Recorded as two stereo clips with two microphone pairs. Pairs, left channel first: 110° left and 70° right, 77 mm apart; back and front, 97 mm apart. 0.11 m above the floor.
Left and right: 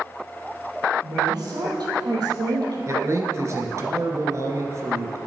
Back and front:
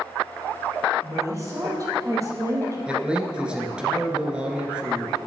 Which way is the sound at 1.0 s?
50° right.